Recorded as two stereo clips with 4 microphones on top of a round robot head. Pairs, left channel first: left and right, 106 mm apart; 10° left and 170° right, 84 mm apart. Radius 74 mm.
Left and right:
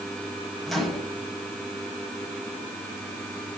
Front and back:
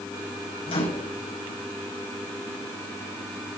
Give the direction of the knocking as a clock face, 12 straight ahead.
I don't hear knocking.